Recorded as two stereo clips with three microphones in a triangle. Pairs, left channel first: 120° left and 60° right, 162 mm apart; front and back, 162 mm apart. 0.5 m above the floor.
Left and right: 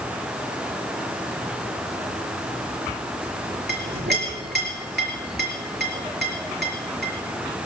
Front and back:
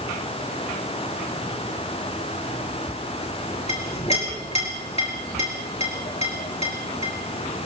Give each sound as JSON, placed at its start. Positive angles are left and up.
{"t": 3.7, "sound": "a clink", "azimuth_deg": -50, "distance_m": 4.5}